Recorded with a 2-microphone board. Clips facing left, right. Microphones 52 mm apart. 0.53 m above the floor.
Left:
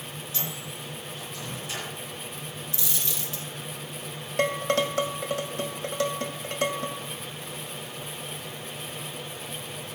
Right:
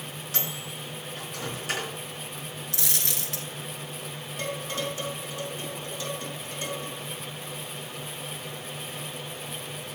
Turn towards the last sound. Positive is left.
turn(degrees=75)  # may be behind; listen again after turning